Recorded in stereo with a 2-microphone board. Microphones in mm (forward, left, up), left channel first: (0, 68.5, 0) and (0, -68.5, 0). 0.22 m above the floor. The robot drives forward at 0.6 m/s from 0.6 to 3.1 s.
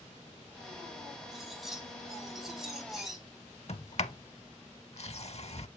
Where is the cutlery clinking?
5° right (ahead or behind), 5 m.